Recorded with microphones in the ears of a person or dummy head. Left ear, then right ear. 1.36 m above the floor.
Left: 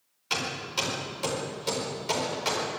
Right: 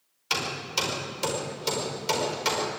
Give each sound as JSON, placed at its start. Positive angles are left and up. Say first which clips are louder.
{"t": 0.3, "sound": "hammering", "louder": "right 2 dB", "side_deg": -15, "distance_m": 4.5}